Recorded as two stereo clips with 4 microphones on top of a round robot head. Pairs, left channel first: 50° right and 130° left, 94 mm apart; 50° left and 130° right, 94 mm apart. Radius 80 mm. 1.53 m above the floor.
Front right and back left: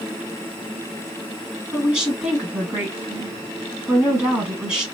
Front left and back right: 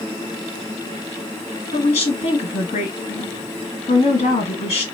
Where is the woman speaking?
45° left, 1.7 m.